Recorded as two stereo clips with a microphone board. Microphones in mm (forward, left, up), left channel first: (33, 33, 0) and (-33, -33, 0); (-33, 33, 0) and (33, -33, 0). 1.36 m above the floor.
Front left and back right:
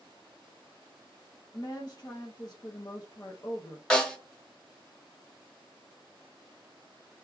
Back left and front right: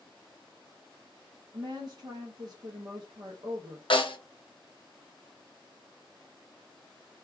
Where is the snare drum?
125° left, 0.9 m.